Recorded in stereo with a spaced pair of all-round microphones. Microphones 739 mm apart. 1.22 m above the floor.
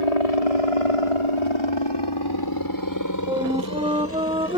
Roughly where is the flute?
Centre.